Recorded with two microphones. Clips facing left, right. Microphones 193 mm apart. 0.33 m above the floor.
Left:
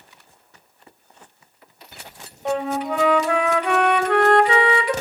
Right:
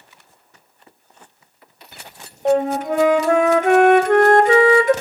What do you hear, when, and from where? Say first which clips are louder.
2.5 s a flute: right 6 dB; 45° right (ahead or behind), 0.7 m